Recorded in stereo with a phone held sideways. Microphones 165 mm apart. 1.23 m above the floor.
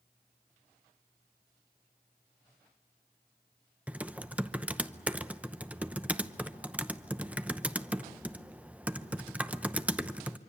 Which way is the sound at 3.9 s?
10° right (ahead or behind).